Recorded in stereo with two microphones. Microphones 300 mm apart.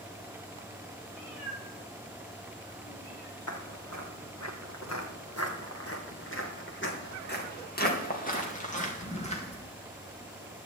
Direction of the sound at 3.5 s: 75° left (ahead or behind).